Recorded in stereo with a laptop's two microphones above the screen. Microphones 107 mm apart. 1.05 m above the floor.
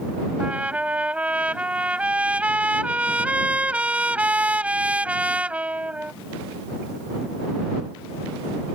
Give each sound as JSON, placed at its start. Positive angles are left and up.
{"t": 0.4, "sound": "a trumpet", "side_deg": -10}